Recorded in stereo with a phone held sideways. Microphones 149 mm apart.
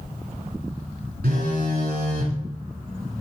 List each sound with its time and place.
1.2 s a phone buzzing: 80° right, 3.5 m